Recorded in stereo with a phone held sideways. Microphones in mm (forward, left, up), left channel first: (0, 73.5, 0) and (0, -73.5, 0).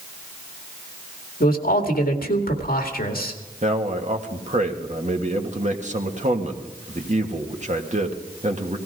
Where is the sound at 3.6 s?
50° right (ahead or behind), 1.7 m.